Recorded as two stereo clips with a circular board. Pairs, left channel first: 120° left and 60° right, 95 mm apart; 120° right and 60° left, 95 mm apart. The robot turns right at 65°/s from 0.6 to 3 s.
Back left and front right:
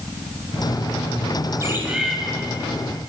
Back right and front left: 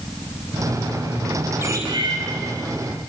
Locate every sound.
1.6 s a bird: 5° right, 4 m; by 2.2 s 35° left, 4 m